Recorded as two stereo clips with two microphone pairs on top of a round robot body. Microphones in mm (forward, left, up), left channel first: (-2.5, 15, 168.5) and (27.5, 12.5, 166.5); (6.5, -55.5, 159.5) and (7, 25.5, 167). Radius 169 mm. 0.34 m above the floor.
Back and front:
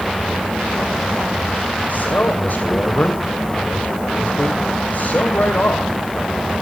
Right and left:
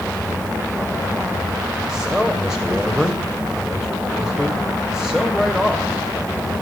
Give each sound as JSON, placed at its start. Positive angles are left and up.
{"t": 1.9, "sound": "a man speaking", "azimuth_deg": 175, "distance_m": 3.0}